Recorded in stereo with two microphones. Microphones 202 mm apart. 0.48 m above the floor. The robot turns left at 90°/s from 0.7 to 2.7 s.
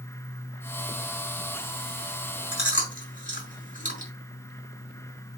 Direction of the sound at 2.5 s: 60° left (ahead or behind).